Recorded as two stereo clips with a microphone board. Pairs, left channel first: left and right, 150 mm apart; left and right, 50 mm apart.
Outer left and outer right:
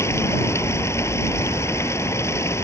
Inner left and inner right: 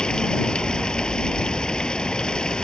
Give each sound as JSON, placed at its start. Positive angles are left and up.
{"t": 0.0, "sound": "running water", "side_deg": 20}